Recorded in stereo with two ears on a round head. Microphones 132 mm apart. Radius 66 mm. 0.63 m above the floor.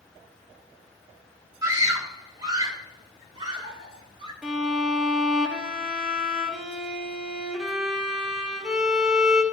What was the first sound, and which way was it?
A scream, 20° right (ahead or behind).